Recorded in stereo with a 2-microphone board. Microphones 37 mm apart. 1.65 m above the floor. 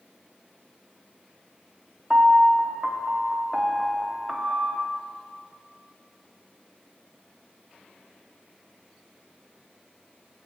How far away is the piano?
About 0.6 m.